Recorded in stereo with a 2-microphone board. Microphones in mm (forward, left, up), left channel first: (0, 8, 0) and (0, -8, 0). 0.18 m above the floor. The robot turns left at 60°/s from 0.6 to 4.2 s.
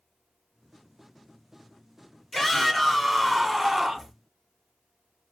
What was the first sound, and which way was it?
A shout, 75° left.